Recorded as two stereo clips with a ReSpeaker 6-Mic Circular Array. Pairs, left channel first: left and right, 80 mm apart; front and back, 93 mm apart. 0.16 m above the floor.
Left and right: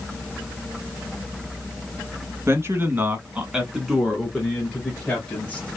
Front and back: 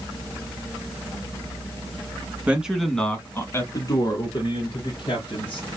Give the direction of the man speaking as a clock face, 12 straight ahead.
4 o'clock.